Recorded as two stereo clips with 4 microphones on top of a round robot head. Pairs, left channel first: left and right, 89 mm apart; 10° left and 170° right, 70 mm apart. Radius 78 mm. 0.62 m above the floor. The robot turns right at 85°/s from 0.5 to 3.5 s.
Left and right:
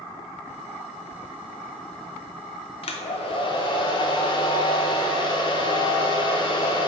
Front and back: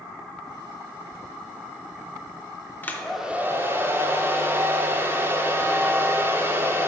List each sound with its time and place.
2.8 s a hair dryer: 70° left, 0.7 m; by 6.9 s 130° left, 0.7 m